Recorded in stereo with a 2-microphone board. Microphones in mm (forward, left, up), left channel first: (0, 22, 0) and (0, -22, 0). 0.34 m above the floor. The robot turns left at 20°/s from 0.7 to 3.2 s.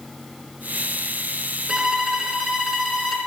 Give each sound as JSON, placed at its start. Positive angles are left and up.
{"t": 1.7, "sound": "a violin", "side_deg": -20, "distance_m": 0.8}